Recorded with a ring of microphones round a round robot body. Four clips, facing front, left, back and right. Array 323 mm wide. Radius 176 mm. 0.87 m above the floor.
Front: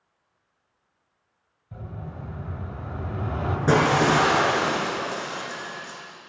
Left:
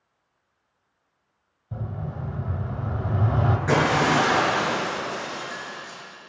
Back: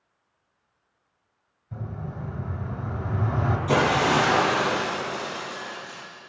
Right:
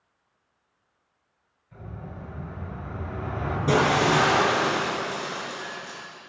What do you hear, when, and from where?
1.7 s an explosion: 95° left, 4.5 m
3.7 s breaking glass: 15° right, 9 m